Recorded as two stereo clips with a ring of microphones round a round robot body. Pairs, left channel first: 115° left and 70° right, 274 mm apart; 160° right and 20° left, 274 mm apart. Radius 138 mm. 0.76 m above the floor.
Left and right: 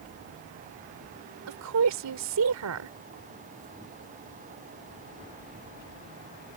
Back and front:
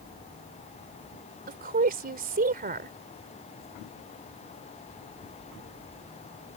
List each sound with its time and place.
1.5 s a woman speaking: 35° right